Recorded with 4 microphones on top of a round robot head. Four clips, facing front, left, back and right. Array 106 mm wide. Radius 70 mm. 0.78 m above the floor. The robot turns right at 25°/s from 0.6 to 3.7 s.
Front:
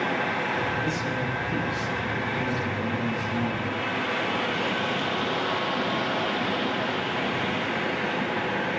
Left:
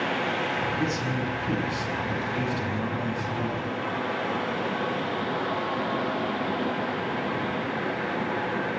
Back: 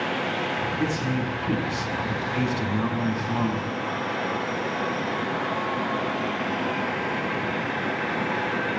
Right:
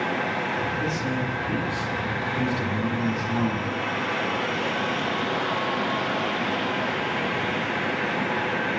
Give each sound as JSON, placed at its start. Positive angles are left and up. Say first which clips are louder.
{"t": 0.8, "sound": "a man speaking", "louder": "right 1 dB, back 2 dB", "azimuth_deg": 145, "distance_m": 7.5}